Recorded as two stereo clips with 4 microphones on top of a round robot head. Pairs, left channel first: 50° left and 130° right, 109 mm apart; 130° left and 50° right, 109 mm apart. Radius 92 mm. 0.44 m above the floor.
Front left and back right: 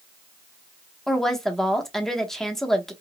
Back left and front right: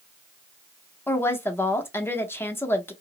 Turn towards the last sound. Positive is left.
turn(degrees=130)